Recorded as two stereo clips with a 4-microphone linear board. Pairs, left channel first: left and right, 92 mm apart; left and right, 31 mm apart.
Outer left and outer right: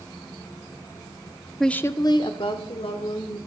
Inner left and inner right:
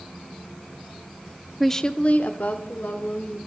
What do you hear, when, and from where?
1.6 s a woman speaking: centre (ahead or behind), 0.7 m; by 3.4 s 75° left (ahead or behind), 2.5 m